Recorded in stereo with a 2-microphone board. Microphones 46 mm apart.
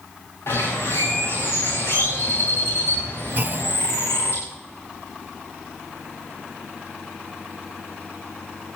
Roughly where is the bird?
Left.